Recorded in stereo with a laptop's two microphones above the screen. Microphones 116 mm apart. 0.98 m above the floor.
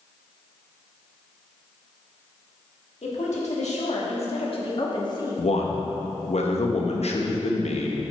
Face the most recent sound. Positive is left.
turn(degrees=70)  # may be behind; listen again after turning